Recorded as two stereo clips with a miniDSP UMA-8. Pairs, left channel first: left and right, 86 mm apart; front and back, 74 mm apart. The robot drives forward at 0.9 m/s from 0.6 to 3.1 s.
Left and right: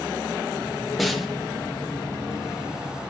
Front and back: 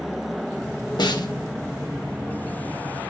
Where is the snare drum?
Straight ahead, 1.0 m.